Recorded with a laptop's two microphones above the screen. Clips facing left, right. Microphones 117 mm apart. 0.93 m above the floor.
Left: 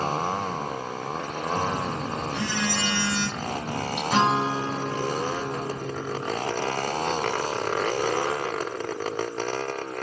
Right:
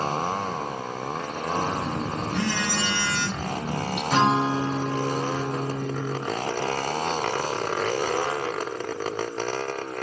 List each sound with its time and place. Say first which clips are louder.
1.6 s a phone buzzing: right 1 dB; 65° right (ahead or behind), 1.9 m
4.1 s a guitar: right 1 dB; 10° left (ahead or behind), 1.7 m